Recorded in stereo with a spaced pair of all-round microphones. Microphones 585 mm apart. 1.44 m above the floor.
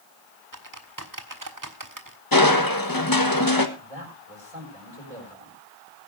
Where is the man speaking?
75° right (ahead or behind), 7 m.